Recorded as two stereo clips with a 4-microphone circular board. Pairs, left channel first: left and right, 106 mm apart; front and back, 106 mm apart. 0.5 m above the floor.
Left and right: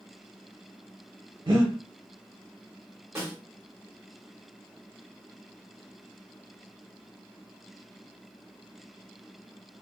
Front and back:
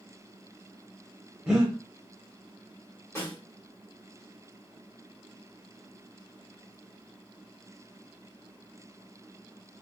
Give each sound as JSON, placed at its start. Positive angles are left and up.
{"t": 1.5, "sound": "breathing", "azimuth_deg": -100, "distance_m": 0.9}
{"t": 3.1, "sound": "a snare drum", "azimuth_deg": -45, "distance_m": 1.6}